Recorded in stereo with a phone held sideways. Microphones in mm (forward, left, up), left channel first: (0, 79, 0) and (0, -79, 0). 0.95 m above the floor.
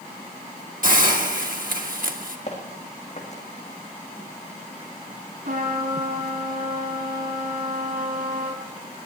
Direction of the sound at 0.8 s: 60° right (ahead or behind).